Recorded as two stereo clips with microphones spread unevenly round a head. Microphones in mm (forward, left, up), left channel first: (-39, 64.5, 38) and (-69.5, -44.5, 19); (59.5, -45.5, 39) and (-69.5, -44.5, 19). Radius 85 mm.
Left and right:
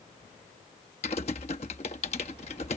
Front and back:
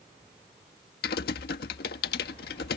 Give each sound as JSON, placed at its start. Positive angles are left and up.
{"t": 1.0, "sound": "typing on a keyboard", "azimuth_deg": 20}